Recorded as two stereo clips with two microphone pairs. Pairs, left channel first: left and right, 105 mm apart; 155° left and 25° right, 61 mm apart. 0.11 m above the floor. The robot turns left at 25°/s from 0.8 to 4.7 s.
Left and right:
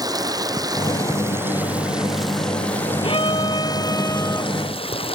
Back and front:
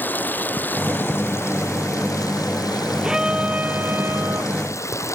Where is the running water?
145° right; by 5.2 s 120° left.